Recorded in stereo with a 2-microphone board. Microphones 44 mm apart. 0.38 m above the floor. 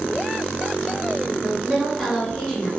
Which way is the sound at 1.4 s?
10° left (ahead or behind).